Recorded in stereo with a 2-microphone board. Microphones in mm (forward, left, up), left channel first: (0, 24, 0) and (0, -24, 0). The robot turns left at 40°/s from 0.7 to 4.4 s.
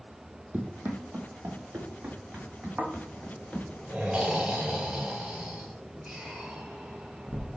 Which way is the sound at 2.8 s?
60° right (ahead or behind).